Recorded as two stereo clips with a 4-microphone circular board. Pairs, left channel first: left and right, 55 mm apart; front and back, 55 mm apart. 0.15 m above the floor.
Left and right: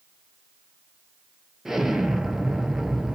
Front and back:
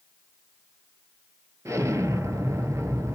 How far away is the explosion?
About 0.5 m.